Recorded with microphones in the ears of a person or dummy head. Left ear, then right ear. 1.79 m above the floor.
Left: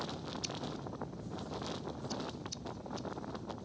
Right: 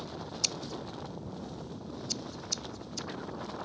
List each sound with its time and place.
0.4 s scissors: 40° right (ahead or behind)